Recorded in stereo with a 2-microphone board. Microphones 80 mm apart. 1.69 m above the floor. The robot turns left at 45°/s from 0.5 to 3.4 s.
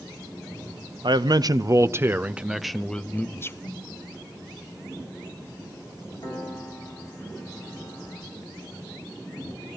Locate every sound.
1.0 s a man speaking: 105° right, 0.6 m; by 3.5 s 150° left, 0.6 m
3.6 s a snare drum: 55° left (ahead or behind), 3 m
6.2 s a piano: 80° left, 7 m